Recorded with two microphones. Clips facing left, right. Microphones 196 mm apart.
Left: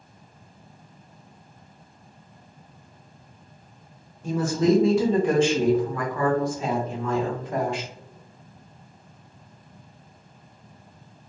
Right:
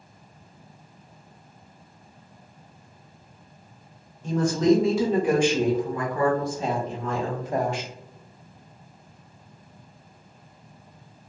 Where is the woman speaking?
10° left (ahead or behind), 1.1 m; by 7.9 s 40° right (ahead or behind), 1.5 m.